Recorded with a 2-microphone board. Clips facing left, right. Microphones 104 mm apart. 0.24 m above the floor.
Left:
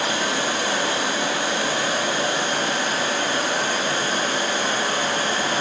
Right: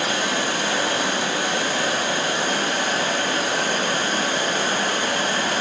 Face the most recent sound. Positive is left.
turn(degrees=-60)  # may be behind; listen again after turning